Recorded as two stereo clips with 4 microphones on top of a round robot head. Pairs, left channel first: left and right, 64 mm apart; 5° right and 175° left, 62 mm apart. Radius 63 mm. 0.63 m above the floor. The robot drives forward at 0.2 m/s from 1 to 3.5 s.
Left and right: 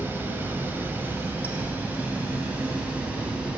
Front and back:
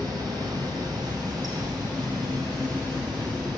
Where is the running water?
150° right, 1.1 m; by 3.6 s 160° right, 1.5 m.